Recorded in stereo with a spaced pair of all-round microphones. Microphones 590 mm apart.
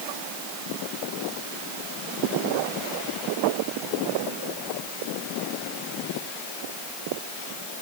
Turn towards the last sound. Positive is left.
No sound to turn to.